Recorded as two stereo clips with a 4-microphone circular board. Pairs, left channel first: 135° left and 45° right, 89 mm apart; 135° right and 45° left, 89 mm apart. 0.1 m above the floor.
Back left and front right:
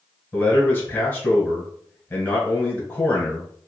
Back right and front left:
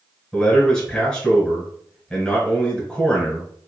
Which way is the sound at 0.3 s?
165° left.